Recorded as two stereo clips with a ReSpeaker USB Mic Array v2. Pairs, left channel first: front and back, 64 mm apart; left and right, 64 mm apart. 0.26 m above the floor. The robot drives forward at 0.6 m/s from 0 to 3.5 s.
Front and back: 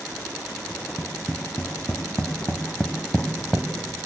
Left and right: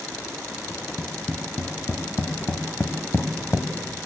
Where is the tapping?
30° left, 2.5 m; by 3.7 s 80° left, 1.7 m.